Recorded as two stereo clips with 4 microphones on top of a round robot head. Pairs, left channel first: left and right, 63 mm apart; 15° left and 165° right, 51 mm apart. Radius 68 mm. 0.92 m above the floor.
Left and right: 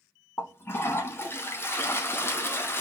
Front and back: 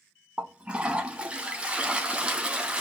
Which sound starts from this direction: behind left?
A toilet flushing, at 0.4 s.